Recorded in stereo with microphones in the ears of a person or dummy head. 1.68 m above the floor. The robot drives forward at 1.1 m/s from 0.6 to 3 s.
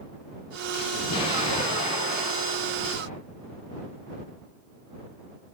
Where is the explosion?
30° left (ahead or behind), 6.5 m; by 3.2 s 45° left (ahead or behind), 5 m.